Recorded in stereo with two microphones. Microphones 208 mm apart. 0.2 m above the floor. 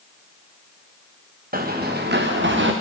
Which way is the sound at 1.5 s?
45° right (ahead or behind).